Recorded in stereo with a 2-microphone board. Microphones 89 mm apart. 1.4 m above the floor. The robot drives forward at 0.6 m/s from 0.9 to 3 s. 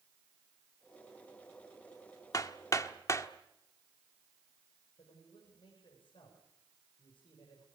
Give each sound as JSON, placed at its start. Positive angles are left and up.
{"t": 2.3, "sound": "hammering", "side_deg": 45, "distance_m": 1.2}
{"t": 5.0, "sound": "a man speaking", "side_deg": 85, "distance_m": 6.0}